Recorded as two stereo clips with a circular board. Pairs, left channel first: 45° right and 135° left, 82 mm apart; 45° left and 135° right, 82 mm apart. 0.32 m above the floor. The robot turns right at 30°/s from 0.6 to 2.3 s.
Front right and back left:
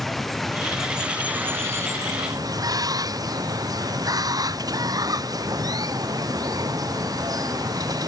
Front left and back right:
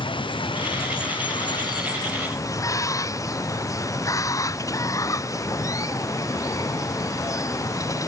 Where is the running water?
45° left; by 8.1 s 95° left.